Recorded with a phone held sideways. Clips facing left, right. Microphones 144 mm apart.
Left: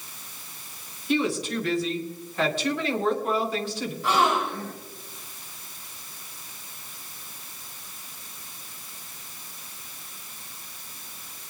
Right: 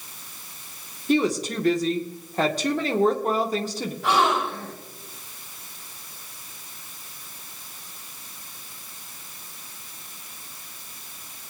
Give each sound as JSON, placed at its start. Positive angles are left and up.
{"t": 1.1, "sound": "a woman speaking", "side_deg": -40, "distance_m": 2.0}
{"t": 4.0, "sound": "a gasp", "side_deg": -65, "distance_m": 7.5}